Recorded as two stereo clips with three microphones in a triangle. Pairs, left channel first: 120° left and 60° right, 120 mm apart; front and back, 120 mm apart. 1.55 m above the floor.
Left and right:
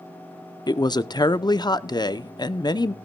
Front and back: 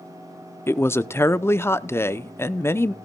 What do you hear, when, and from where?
0.7 s a woman speaking: 70° left, 0.6 m